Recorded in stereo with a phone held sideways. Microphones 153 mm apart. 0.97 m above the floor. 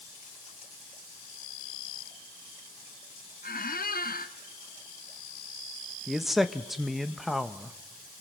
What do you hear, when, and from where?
3.4 s a squeak: 70° left (ahead or behind), 1.0 m
6.1 s a man speaking: centre (ahead or behind), 1.1 m